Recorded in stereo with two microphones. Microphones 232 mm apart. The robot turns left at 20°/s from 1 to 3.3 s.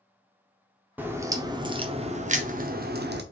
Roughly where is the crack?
Ahead.